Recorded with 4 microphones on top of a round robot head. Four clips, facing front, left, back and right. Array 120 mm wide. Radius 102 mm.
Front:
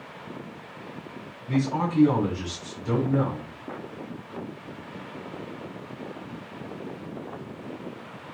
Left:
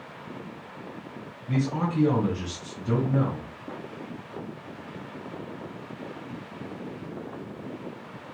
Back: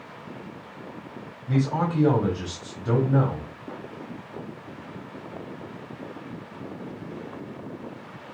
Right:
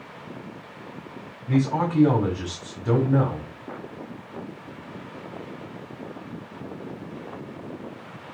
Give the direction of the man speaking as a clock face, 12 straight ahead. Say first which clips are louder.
Right 5 dB, back 1 dB; 4 o'clock.